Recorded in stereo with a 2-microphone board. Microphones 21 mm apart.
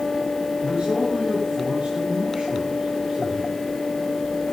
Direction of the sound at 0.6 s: 45° right (ahead or behind).